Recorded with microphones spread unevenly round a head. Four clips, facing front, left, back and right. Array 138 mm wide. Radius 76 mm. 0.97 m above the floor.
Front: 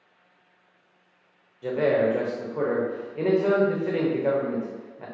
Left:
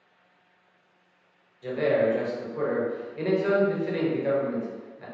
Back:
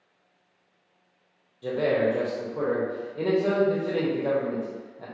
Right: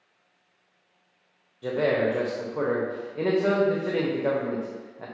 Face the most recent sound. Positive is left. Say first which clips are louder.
# even, front 2 dB
turn(degrees=-40)